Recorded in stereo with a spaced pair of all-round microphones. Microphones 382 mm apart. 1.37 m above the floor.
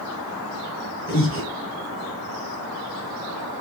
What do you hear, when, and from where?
1.1 s breathing: 30° left (ahead or behind), 6 m